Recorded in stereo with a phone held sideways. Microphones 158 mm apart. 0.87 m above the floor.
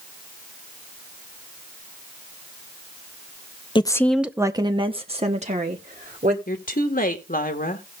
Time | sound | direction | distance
3.8 | a woman speaking | 30° left (ahead or behind) | 0.6 m
6.5 | a woman speaking | 65° left (ahead or behind) | 1.6 m